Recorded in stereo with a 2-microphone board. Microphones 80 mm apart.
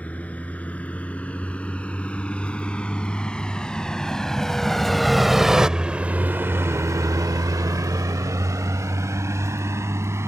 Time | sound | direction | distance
0.0 | a vehicle | 15° left (ahead or behind) | ?